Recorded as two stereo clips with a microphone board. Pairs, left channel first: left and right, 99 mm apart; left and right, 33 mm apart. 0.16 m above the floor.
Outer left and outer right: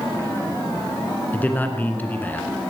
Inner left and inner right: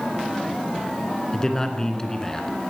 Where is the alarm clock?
No alarm clock in this recording.